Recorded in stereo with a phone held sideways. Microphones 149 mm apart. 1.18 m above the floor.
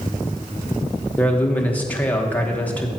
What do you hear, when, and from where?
1.2 s a man speaking: 10° left (ahead or behind), 1.1 m